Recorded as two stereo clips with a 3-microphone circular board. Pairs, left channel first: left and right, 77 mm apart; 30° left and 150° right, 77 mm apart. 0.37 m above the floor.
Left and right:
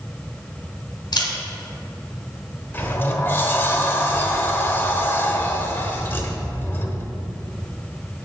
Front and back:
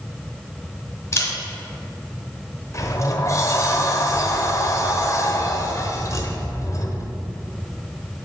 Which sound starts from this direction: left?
A camera shutter, at 1.1 s.